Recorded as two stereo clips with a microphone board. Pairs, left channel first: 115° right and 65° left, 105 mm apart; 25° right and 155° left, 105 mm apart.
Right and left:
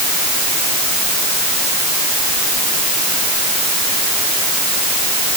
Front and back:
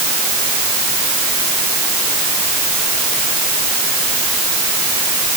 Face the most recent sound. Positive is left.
No sound to turn to.